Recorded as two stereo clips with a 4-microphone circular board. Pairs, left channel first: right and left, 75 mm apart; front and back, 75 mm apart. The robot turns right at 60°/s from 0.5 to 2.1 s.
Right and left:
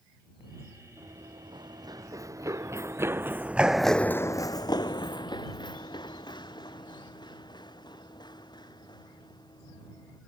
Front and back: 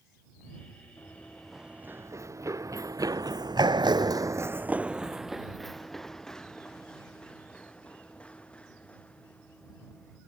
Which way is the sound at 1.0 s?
55° left.